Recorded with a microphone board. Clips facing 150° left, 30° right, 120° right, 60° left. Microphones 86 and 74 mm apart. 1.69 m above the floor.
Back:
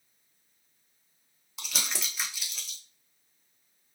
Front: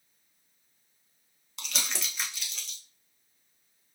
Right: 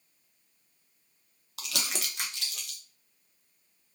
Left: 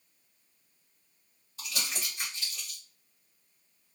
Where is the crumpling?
125° right, 0.6 m.